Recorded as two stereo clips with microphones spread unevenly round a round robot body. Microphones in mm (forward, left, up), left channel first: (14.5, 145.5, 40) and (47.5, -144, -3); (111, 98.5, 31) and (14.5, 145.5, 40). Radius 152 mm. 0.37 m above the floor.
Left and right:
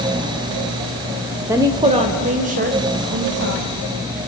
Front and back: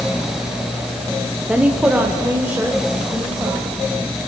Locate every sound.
1.5 s a woman speaking: 130° right, 1.3 m; by 3.7 s 125° right, 2.5 m